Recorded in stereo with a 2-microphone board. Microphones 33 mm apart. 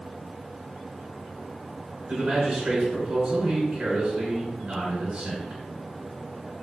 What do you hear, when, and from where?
2.1 s a man speaking: 25° right (ahead or behind), 1.4 m